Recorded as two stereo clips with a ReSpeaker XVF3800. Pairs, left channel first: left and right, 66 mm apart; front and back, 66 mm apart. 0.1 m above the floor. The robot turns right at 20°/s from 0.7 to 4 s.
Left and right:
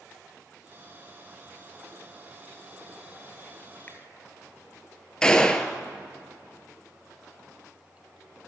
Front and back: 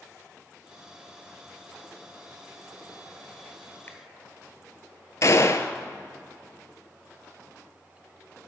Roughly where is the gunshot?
Ahead.